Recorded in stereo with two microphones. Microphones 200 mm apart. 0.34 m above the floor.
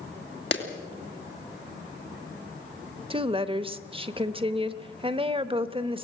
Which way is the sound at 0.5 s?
65° left (ahead or behind).